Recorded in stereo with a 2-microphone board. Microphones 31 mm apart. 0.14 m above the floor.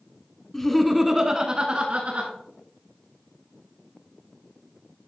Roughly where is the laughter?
Centre.